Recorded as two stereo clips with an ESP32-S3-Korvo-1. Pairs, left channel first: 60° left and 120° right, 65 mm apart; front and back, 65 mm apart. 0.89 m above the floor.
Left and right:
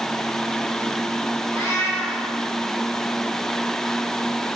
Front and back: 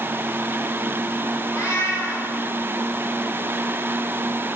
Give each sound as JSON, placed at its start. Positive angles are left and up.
{"t": 1.5, "sound": "a cat meowing", "azimuth_deg": 25, "distance_m": 3.0}